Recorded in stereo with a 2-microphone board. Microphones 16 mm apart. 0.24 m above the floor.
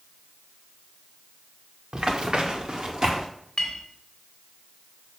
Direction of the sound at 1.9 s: 55° right (ahead or behind).